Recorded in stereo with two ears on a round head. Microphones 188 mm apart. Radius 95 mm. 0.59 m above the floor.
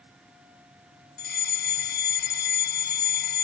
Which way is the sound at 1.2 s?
50° left (ahead or behind).